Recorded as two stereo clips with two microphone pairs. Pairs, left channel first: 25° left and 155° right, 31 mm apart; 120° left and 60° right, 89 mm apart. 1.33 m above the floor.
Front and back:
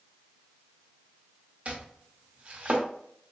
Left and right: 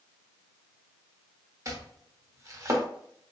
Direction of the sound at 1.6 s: 110° right.